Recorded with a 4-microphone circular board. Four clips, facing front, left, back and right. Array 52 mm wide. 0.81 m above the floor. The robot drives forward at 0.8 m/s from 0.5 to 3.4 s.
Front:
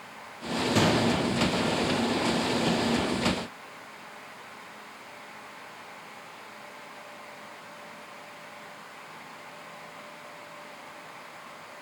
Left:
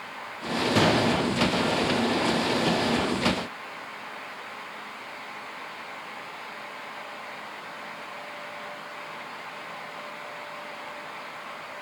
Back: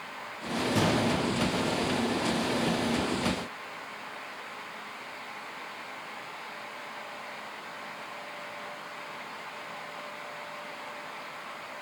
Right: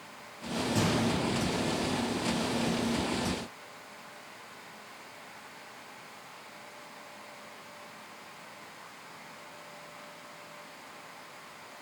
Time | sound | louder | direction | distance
0.8 | a gunshot | left 7 dB, front 3 dB | 70° left | 1.0 m